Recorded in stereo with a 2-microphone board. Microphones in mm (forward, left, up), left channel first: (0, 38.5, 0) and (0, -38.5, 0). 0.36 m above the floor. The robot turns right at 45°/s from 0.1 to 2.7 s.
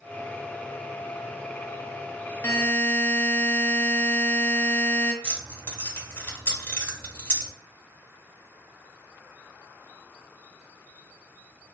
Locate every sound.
2.4 s a buzzer: 35° left (ahead or behind), 0.7 m; by 5.1 s 25° left (ahead or behind), 0.7 m
5.2 s keys jangling: 25° left (ahead or behind), 0.9 m